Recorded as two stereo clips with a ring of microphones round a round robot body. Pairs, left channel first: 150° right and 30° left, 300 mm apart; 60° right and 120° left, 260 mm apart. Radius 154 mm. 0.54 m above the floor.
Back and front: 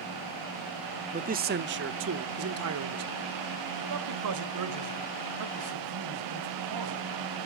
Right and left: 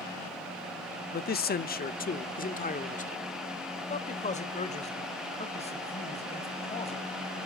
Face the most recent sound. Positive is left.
turn(degrees=10)